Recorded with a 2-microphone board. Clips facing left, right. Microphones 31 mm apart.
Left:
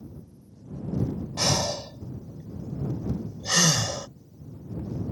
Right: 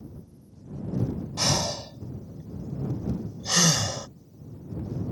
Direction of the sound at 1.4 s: 25° left (ahead or behind).